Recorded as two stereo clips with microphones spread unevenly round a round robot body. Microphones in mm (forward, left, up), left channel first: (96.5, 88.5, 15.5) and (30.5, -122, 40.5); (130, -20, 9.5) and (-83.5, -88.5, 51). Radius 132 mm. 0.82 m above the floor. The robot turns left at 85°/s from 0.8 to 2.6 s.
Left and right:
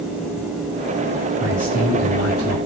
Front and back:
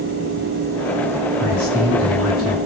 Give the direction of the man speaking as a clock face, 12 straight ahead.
6 o'clock.